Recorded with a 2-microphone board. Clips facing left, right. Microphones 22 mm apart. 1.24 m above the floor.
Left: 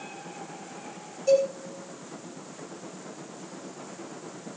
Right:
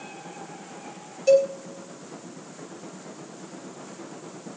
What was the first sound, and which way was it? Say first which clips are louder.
A cowbell: right 4 dB; 35° right (ahead or behind).